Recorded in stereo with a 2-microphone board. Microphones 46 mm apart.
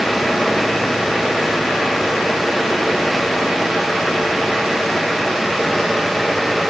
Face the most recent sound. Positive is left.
No sound to turn to.